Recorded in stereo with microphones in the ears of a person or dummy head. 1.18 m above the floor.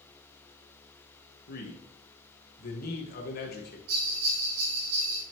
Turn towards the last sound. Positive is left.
turn(degrees=-80)